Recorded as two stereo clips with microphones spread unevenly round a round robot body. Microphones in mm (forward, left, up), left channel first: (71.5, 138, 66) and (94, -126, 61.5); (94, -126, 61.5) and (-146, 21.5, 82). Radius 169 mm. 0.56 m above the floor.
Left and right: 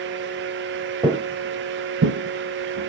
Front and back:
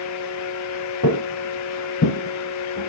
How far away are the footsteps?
About 0.6 m.